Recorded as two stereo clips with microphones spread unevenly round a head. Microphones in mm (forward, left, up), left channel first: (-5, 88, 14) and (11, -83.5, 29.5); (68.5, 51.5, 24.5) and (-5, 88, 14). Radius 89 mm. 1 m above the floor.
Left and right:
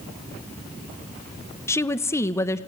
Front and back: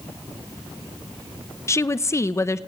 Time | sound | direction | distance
1.7 | a woman speaking | 30° left | 0.9 m